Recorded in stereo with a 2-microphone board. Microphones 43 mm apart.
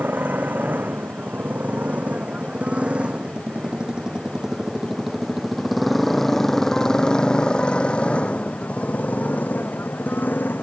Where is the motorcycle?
45° right (ahead or behind); by 10.6 s 50° left (ahead or behind).